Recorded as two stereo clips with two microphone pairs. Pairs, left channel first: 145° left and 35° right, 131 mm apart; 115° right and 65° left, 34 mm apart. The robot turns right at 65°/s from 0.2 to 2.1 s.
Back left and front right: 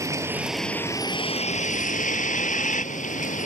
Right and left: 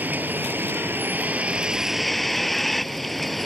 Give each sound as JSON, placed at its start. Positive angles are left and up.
{"t": 0.0, "sound": "a vehicle", "azimuth_deg": 30}